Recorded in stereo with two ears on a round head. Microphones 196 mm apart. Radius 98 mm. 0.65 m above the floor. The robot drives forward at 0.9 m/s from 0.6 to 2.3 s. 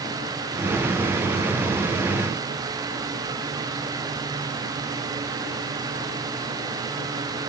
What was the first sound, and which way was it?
Only background noise.